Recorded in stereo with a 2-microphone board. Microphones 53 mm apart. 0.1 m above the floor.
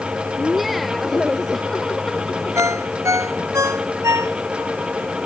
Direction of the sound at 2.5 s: 75° right (ahead or behind).